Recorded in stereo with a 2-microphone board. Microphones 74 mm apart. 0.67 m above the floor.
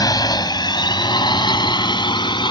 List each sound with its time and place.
0.0 s a drone: 60° left (ahead or behind); by 2.5 s 80° left